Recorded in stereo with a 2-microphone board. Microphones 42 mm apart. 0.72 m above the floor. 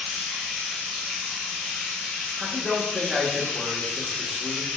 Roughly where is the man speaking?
Centre.